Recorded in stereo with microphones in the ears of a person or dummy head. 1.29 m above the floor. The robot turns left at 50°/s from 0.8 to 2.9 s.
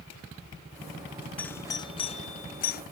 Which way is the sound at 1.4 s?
5° left (ahead or behind).